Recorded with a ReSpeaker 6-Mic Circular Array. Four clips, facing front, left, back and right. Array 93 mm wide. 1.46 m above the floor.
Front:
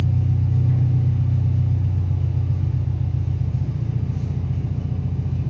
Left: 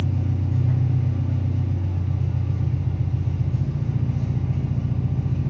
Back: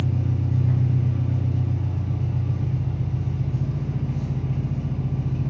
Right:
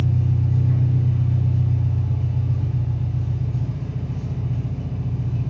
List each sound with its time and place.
0.0 s an engine running: 150° left, 0.8 m